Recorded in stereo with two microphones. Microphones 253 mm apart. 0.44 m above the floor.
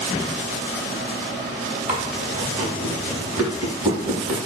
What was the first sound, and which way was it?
Chewing, 30° right (ahead or behind).